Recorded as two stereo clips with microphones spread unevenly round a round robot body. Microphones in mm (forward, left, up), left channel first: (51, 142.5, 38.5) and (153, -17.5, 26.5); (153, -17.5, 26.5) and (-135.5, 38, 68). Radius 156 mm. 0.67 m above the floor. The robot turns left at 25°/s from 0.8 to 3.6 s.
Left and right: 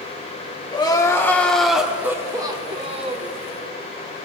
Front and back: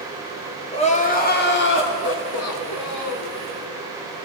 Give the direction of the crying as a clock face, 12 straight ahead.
10 o'clock.